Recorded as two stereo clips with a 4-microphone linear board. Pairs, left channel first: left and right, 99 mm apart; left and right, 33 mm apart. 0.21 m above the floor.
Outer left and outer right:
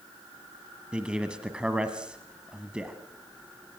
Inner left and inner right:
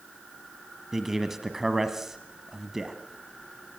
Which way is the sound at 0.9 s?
10° right (ahead or behind).